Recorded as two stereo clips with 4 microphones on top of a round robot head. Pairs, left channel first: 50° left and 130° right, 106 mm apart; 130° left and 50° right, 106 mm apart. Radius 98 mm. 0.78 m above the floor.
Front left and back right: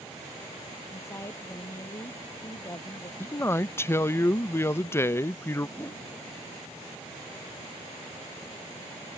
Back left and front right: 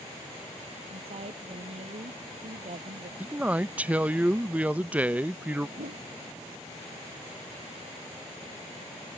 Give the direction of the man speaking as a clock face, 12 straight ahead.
12 o'clock.